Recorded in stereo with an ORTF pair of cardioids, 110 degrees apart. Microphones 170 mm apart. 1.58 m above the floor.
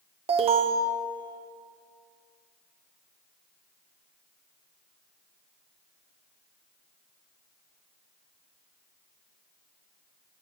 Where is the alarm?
35° right, 1.3 m.